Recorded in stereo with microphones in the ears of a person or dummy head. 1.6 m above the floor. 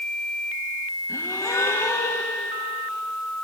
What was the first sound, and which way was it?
A gasp, 15° left (ahead or behind).